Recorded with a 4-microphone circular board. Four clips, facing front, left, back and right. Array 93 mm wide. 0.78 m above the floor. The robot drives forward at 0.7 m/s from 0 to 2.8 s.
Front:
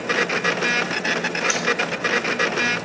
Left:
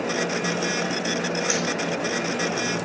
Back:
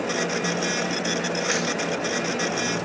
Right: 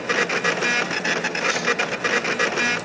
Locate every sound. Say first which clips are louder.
1.5 s hammering: left 1 dB, even; 175° left, 4.5 m